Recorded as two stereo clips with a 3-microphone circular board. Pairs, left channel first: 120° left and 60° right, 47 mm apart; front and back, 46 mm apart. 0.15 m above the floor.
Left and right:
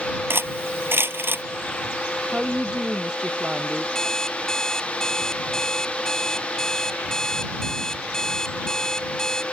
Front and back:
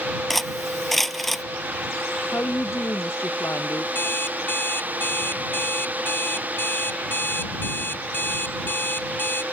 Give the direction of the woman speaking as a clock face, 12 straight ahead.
12 o'clock.